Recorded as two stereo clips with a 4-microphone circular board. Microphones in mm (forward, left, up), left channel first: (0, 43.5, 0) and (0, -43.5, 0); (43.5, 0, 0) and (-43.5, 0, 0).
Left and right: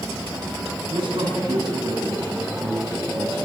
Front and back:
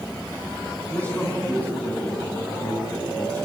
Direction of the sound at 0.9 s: 70° right.